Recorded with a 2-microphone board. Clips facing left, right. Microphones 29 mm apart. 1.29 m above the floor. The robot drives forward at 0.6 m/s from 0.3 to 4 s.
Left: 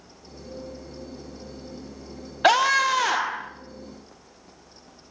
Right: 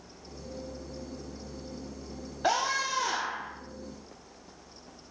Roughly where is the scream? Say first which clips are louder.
Left 10 dB; left.